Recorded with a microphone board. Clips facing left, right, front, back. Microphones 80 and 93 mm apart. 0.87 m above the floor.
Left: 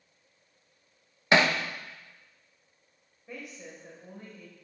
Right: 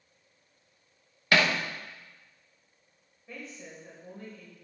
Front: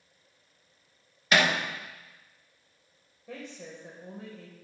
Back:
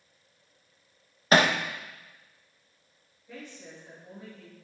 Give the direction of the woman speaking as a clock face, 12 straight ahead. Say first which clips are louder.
Left 1 dB, front 3 dB; 12 o'clock.